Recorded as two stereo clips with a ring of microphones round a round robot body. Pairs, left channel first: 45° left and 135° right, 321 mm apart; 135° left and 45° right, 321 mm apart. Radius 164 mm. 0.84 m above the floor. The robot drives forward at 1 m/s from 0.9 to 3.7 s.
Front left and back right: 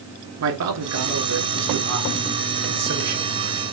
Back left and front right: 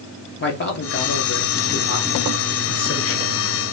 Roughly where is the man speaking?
Behind.